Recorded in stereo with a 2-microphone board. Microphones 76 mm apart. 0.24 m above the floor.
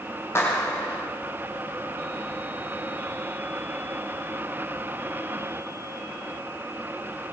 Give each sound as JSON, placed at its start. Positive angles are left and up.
{"t": 0.3, "sound": "a clap", "side_deg": 30, "distance_m": 9.0}